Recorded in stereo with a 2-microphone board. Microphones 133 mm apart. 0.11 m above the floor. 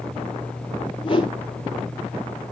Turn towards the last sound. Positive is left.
turn(degrees=40)  # may be behind; listen again after turning